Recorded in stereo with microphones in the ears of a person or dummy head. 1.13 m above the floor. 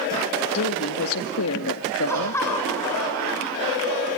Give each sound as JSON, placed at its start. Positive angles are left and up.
{"t": 0.5, "sound": "a woman speaking", "side_deg": 80, "distance_m": 2.0}
{"t": 2.1, "sound": "laughter", "side_deg": 15, "distance_m": 9.5}